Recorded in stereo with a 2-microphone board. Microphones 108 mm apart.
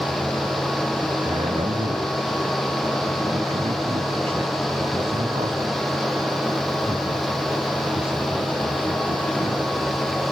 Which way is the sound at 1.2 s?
65° right (ahead or behind).